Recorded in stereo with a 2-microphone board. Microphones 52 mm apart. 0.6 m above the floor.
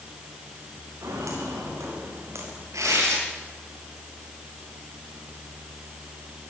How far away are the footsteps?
About 8.5 m.